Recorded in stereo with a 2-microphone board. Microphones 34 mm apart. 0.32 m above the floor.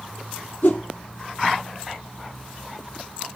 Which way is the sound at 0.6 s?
70° left (ahead or behind).